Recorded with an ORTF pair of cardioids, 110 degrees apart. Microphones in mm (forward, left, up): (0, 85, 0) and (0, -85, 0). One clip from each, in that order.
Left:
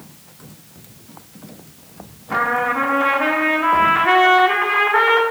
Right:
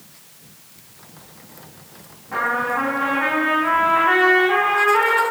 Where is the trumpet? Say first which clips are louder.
Left 2 dB; 45° left, 0.8 m.